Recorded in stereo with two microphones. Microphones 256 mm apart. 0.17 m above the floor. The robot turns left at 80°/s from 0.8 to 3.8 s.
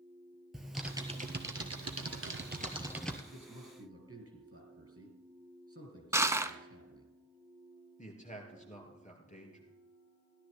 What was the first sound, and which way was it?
Typing on a keyboard, straight ahead.